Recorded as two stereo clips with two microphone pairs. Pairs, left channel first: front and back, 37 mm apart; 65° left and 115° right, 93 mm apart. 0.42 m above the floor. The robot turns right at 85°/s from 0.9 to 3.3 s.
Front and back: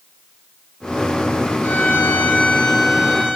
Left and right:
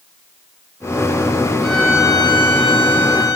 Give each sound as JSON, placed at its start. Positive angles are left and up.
{"t": 1.6, "sound": "a violin", "azimuth_deg": -25, "distance_m": 7.0}